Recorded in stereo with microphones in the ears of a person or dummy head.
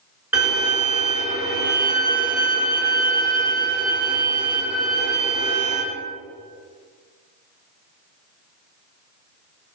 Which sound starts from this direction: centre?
A violin, at 0.3 s.